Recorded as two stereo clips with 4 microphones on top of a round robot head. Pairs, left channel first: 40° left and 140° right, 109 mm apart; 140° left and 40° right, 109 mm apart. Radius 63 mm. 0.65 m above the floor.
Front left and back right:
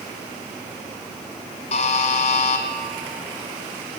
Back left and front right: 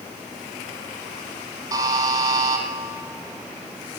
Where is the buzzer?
15° left, 1.1 m.